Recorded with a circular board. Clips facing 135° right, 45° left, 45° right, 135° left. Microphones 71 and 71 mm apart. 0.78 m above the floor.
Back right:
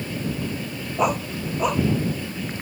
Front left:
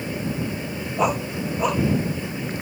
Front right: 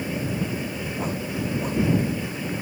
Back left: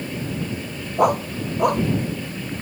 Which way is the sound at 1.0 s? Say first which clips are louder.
Even, back left 11 dB; 135° left.